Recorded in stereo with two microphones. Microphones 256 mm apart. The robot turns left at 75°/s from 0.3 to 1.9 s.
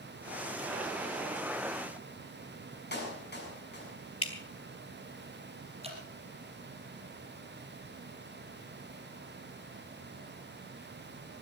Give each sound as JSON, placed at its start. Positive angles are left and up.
{"t": 2.9, "sound": "a clap", "side_deg": 40, "distance_m": 6.5}
{"t": 4.2, "sound": "dripping", "side_deg": 60, "distance_m": 2.5}
{"t": 5.8, "sound": "dripping", "side_deg": -25, "distance_m": 4.5}